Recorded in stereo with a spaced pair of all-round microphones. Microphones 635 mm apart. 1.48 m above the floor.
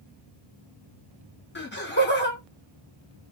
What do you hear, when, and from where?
1.6 s laughter: 15° left (ahead or behind), 1.2 m